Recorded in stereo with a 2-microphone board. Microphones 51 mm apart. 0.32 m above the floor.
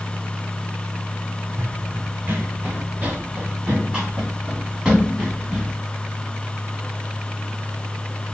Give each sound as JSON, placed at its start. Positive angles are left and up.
{"t": 1.6, "sound": "running footsteps", "side_deg": -65, "distance_m": 0.9}